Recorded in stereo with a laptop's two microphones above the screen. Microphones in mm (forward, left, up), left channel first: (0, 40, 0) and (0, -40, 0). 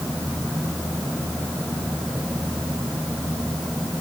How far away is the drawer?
No drawer in this recording.